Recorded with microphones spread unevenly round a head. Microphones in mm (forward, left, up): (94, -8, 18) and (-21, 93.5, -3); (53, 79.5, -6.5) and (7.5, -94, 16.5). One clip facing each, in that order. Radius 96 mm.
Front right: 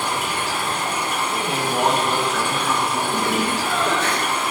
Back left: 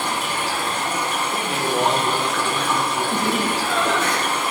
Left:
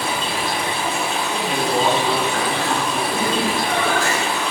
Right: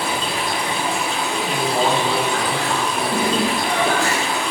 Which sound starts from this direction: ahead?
A man speaking, at 1.3 s.